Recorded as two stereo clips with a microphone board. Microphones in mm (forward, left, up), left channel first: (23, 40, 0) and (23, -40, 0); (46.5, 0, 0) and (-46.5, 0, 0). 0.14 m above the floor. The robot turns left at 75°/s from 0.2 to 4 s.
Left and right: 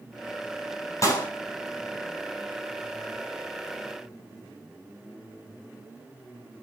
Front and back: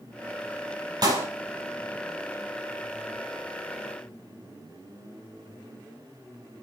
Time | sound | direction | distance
1.0 | a clap | 140° left | 4 m